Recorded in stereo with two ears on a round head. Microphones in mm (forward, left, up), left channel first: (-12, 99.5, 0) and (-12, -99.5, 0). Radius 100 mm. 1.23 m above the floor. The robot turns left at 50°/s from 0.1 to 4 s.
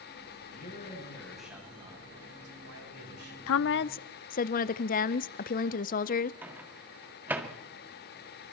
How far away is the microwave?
About 1.8 m.